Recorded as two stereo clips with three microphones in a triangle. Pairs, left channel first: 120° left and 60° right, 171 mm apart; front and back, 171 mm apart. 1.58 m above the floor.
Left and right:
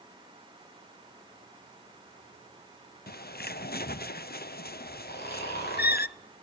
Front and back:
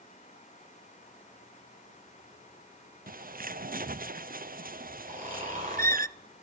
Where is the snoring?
135° left, 7.5 m.